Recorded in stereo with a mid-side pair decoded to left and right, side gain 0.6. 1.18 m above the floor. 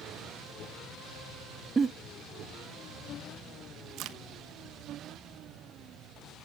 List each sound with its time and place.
1.8 s a giggle: 25° right, 0.9 m
4.0 s a crack: 65° right, 1.1 m